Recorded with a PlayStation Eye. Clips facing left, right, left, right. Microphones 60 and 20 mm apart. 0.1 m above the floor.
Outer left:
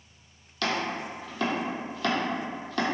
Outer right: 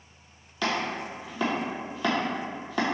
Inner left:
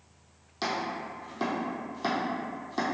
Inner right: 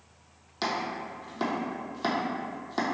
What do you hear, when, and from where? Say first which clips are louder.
0.6 s chopping: outer right 1 dB, inner right 1 dB; 10° right (ahead or behind), 0.7 m